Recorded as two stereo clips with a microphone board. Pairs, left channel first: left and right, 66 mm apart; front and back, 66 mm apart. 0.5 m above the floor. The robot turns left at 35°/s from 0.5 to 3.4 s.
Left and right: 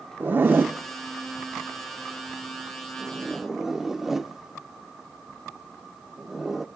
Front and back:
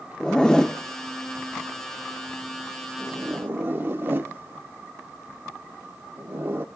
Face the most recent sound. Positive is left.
turn(degrees=-170)